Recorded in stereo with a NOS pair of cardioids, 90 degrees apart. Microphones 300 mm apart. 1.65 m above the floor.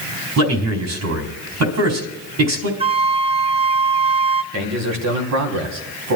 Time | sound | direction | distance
0.4 | a man speaking | 60° right | 4 m
2.8 | a flute | 20° right | 0.5 m
4.5 | a man speaking | 65° right | 3.5 m